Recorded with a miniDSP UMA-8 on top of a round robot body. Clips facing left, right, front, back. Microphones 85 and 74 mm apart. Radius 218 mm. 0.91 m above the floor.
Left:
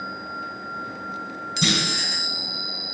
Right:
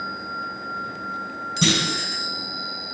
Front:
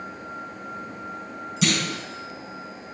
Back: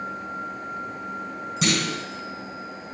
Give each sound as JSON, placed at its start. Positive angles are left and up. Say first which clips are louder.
{"t": 1.6, "sound": "a clunk", "louder": "right 2 dB, even", "azimuth_deg": -130, "distance_m": 3.5}